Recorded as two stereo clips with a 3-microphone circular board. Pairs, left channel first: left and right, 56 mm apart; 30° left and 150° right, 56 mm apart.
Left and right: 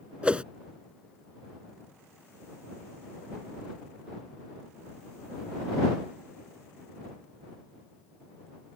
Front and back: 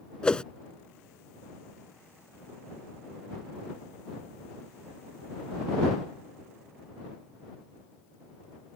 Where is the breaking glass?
I don't hear breaking glass.